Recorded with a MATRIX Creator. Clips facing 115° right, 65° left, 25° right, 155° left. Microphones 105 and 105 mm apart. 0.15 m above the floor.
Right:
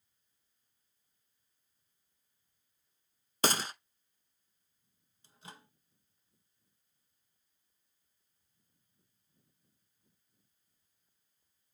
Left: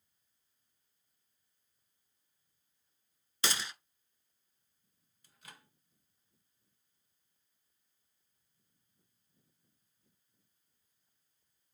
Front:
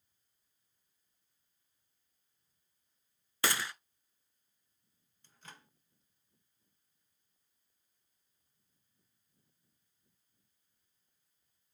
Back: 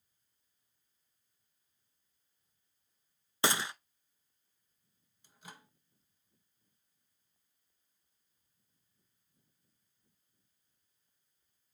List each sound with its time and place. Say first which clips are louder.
3.4 s a gunshot: right 6 dB, back 2 dB; 140° right, 0.6 m
5.2 s a microwave: right 4 dB, back 2 dB; 135° right, 0.9 m